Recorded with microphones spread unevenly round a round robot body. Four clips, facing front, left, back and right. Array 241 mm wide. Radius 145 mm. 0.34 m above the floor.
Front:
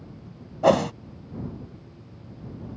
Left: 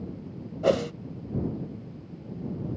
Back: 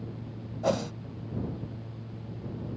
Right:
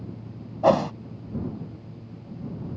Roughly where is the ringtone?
No ringtone in this recording.